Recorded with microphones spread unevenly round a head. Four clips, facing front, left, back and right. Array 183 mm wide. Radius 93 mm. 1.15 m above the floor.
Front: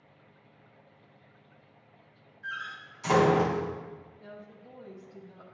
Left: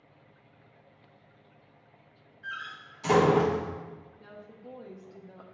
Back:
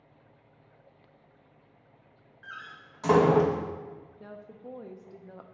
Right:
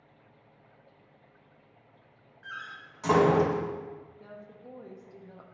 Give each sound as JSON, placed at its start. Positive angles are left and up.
{"t": 2.4, "sound": "a door slam", "azimuth_deg": -160, "distance_m": 0.9}
{"t": 4.2, "sound": "a woman speaking", "azimuth_deg": 180, "distance_m": 0.7}